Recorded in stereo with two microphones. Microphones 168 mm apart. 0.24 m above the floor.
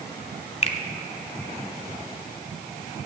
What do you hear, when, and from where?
0.6 s a finger snap: 40° left (ahead or behind), 1.0 m